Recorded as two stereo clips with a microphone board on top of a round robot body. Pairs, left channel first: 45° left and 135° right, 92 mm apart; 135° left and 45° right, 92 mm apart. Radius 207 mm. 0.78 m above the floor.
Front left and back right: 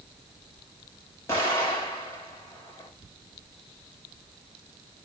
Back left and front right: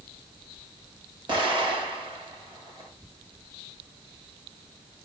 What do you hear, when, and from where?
1.3 s an explosion: 15° right, 5 m